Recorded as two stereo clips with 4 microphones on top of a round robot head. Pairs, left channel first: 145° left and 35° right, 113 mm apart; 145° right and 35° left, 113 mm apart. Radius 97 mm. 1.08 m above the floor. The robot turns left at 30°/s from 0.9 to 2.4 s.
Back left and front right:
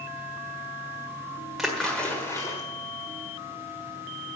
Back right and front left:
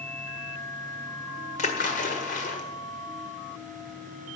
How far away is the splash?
About 1.5 m.